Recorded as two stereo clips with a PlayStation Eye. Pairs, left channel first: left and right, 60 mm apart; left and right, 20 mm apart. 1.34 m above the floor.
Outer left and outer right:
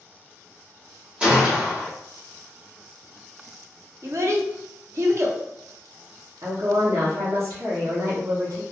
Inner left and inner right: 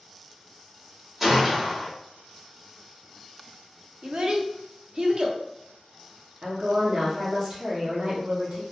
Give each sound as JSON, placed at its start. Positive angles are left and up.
{"t": 1.2, "sound": "a gunshot", "side_deg": -20, "distance_m": 1.3}
{"t": 4.0, "sound": "a child speaking", "side_deg": -50, "distance_m": 0.6}
{"t": 6.4, "sound": "a woman speaking", "side_deg": -65, "distance_m": 1.0}